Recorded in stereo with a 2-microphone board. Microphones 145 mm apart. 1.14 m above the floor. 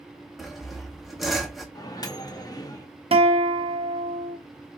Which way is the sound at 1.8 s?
25° left (ahead or behind).